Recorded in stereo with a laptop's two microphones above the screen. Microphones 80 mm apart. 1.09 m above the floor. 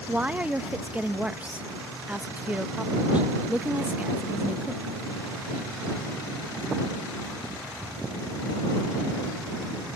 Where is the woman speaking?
15° right (ahead or behind).